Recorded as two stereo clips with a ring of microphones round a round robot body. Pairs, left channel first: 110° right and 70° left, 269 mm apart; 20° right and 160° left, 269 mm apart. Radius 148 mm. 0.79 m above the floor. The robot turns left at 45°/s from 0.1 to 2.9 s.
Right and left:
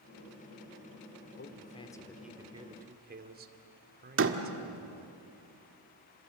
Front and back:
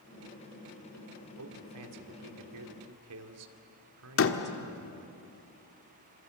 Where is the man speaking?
165° right, 2 m; by 5.2 s 125° left, 2 m.